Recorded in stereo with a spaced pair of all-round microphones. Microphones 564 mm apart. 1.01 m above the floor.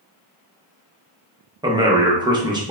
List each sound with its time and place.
1.6 s a man speaking: 10° right (ahead or behind), 0.5 m